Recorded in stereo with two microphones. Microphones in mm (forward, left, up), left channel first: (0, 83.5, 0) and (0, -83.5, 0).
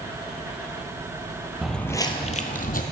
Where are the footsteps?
Centre (ahead or behind), 1.2 m; by 2.8 s 60° left (ahead or behind), 1.4 m.